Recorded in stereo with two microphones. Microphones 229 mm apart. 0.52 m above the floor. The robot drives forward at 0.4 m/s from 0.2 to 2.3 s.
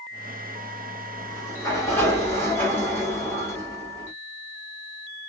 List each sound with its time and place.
1.2 s a sliding door: 15° left (ahead or behind), 1.2 m; by 4.1 s 10° left (ahead or behind), 1.5 m